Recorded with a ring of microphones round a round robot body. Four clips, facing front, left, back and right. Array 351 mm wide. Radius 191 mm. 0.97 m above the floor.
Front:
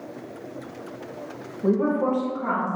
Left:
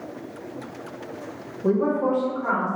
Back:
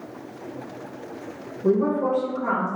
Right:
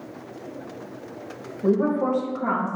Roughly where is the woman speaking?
Ahead right.